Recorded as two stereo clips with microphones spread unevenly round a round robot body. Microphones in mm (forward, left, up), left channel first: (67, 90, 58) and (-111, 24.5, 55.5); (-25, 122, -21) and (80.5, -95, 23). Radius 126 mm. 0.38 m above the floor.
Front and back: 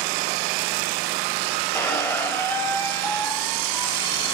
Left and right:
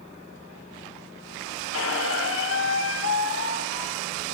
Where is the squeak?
100° left, 1.8 m.